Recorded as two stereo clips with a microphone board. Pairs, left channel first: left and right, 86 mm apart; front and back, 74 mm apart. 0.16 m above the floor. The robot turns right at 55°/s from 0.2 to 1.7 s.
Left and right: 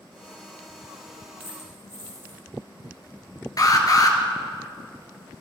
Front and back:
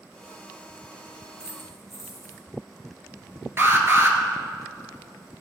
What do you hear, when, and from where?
1.4 s a dropped coin: 105° right, 4 m; by 2.4 s 85° right, 4 m
3.6 s an alarm: 130° left, 1.7 m